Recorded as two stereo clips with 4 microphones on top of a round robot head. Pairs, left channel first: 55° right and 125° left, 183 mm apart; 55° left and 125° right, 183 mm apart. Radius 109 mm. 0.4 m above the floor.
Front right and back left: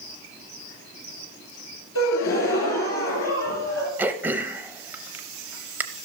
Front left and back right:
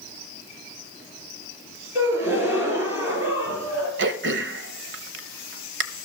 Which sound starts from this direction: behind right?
Throat clearing, at 4.0 s.